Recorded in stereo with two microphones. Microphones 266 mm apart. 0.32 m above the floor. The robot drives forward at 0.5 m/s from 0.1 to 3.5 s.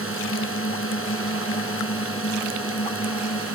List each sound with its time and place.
0.0 s a drone: 50° left (ahead or behind); by 3.5 s 55° left (ahead or behind)